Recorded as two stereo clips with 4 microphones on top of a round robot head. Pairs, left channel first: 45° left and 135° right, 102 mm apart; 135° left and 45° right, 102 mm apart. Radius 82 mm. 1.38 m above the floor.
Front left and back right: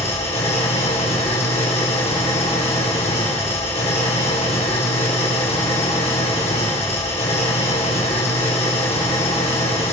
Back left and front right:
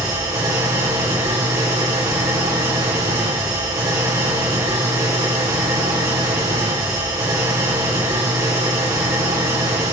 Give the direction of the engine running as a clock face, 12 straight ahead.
11 o'clock.